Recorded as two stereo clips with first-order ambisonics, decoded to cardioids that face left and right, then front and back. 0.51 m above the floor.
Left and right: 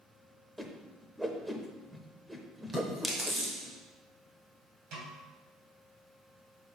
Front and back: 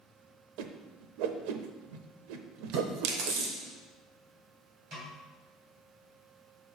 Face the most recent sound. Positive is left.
turn(degrees=-125)